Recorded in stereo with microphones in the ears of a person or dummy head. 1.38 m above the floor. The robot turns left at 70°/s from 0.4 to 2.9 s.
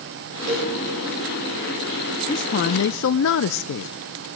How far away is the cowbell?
About 8 m.